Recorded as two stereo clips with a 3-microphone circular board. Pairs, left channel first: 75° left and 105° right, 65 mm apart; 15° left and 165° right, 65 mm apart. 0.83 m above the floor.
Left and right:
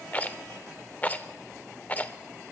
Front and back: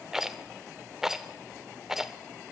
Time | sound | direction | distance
0.1 | a rattle | 120° left | 0.5 m